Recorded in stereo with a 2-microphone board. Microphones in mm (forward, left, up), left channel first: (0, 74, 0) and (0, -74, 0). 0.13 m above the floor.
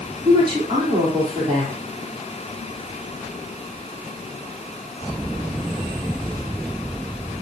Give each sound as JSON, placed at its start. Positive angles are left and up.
{"t": 0.2, "sound": "a woman speaking", "side_deg": -30, "distance_m": 5.0}